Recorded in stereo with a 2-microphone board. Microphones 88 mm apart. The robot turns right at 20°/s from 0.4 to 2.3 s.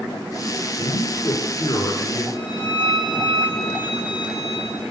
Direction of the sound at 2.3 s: 65° left (ahead or behind).